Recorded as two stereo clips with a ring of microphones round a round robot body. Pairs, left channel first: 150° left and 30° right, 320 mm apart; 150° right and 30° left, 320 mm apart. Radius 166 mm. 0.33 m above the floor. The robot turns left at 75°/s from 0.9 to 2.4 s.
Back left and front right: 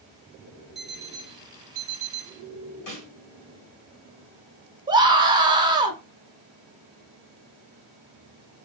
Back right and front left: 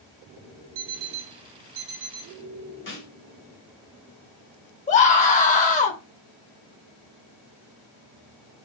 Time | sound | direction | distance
0.8 | an alarm clock | 60° left | 0.6 m
2.9 | a snare drum | 160° left | 2 m
4.9 | a scream | 100° right | 1.0 m